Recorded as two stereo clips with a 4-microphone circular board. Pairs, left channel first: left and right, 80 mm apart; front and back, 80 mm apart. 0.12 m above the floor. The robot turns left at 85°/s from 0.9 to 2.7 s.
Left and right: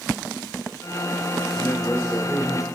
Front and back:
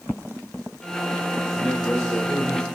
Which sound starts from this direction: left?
A man speaking, at 1.6 s.